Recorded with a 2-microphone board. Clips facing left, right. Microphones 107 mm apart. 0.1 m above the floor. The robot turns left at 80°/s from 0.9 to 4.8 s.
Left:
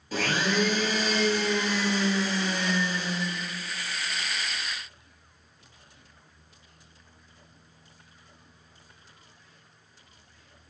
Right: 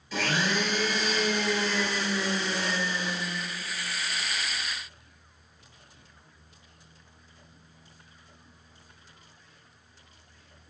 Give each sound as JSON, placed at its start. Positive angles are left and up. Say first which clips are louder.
{"t": 0.1, "sound": "a blender", "louder": "left 1 dB", "azimuth_deg": 85, "distance_m": 2.5}